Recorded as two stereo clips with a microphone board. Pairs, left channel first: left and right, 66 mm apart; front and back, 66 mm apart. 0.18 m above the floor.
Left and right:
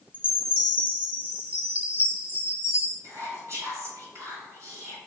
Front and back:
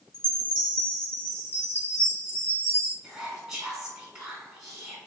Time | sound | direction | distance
0.1 | a chime | 145° right | 0.7 m
3.0 | whispering | 100° right | 1.4 m